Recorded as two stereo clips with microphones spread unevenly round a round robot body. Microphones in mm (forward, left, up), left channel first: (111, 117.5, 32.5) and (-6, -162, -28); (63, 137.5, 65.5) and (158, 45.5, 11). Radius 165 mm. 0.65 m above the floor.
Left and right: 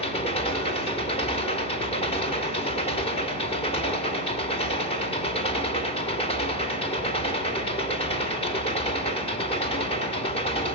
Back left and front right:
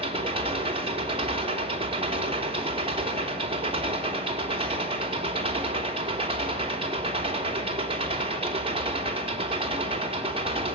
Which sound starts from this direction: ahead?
An engine running, at 0.0 s.